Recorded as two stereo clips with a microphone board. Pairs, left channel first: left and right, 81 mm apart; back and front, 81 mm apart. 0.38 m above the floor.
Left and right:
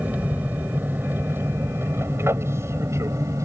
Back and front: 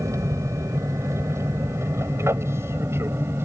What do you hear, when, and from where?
0.0 s an aircraft: 30° right; by 3.5 s 55° right